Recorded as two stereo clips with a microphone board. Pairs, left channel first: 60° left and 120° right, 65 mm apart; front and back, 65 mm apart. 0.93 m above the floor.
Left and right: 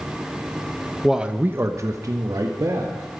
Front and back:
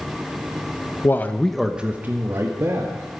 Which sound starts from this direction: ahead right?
A man speaking, at 1.0 s.